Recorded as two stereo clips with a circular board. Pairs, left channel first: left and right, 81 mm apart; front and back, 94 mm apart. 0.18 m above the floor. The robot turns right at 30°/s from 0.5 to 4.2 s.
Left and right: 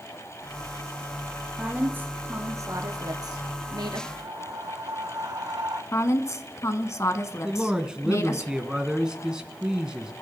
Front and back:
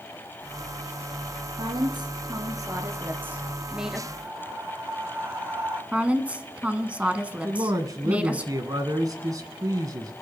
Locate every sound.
1.6 s a woman speaking: 165° right, 2.5 m; by 4.0 s 90° right, 2.5 m
4.1 s breathing: 120° right, 3.5 m; by 5.8 s 115° right, 3.5 m
5.9 s a woman speaking: 110° left, 1.3 m
7.4 s a man speaking: 165° right, 2 m